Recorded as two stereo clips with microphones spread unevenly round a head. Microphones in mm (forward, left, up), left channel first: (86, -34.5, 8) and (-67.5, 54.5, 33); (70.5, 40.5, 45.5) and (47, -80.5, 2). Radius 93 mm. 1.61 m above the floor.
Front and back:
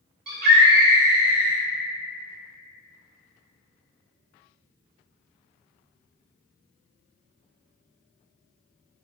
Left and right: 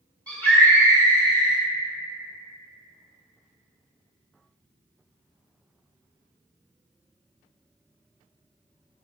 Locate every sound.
0.3 s a scream: straight behind, 1.0 m